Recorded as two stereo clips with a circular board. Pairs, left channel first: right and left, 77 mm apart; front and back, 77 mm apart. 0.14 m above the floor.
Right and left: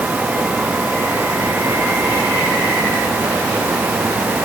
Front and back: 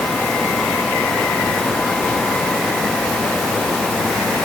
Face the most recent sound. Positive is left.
No sound to turn to.